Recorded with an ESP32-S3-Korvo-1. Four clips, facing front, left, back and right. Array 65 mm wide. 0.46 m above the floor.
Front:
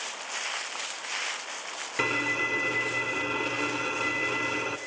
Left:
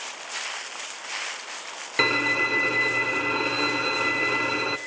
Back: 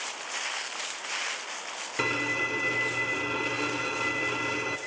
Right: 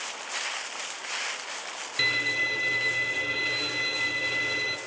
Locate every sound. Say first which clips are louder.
2.0 s a violin: left 5 dB, front 1 dB; 85° left, 0.8 m